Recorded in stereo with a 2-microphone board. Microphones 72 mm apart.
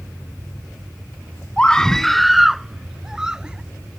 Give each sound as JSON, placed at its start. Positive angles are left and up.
{"t": 1.6, "sound": "a scream", "side_deg": 15}